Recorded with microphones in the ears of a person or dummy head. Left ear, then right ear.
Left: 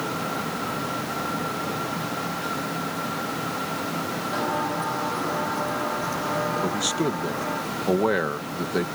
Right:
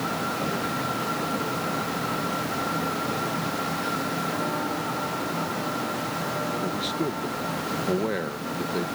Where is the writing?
I don't hear writing.